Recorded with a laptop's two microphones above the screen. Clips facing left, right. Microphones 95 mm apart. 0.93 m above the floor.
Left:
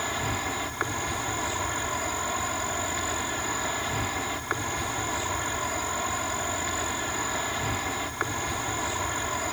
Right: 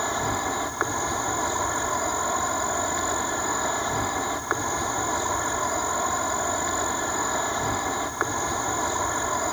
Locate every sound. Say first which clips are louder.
0.0 s an insect: right 4 dB; 25° right (ahead or behind)